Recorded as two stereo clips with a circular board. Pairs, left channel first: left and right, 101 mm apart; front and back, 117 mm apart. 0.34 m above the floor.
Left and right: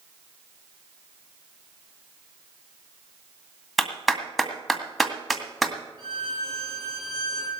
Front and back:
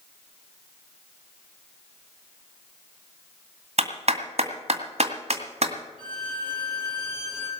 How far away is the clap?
About 2.0 m.